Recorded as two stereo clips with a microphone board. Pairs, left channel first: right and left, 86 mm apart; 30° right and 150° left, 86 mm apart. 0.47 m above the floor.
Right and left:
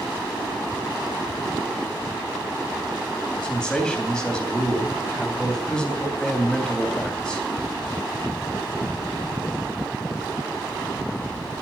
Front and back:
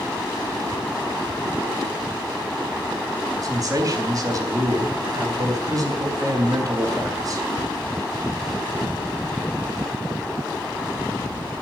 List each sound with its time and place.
3.4 s a man speaking: 170° right, 3.5 m